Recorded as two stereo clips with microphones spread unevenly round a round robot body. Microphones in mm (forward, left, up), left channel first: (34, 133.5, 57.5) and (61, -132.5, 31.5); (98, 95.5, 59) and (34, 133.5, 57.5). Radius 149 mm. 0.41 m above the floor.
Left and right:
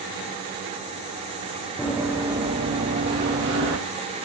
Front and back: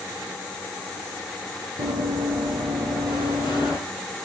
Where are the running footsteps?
170° right, 3.5 m; by 3.8 s 135° right, 4 m.